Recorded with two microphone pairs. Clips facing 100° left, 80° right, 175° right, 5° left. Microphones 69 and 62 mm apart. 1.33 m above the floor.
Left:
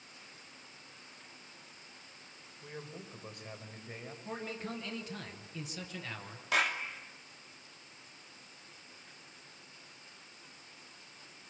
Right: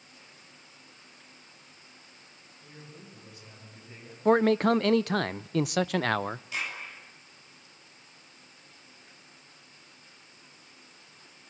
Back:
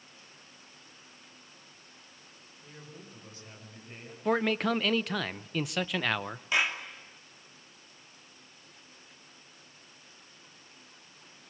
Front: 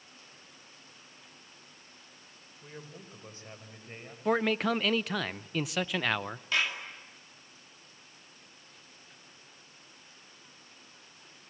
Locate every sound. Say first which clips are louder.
2.6 s a man speaking: left 4 dB, front 2 dB; 60° left, 4.5 m; by 4.2 s 65° left, 5.5 m
4.2 s a man speaking: right 20 dB, even; 85° right, 0.5 m
6.5 s a clap: left 5 dB, back 2 dB; 110° left, 2.5 m